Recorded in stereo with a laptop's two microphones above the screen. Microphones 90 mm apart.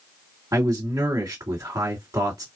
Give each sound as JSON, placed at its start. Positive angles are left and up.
{"t": 0.5, "sound": "a man speaking", "side_deg": -35, "distance_m": 1.4}